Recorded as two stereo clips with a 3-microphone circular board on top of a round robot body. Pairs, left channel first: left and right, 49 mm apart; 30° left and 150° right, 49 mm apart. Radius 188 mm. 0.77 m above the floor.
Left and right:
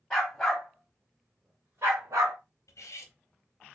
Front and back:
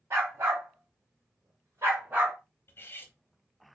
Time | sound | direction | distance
0.1 | a dog barking | 170° left | 1.3 m
2.7 | cutlery clinking | 75° left | 0.6 m